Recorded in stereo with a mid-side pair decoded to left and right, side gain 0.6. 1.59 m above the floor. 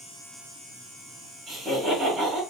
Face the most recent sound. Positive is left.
turn(degrees=-25)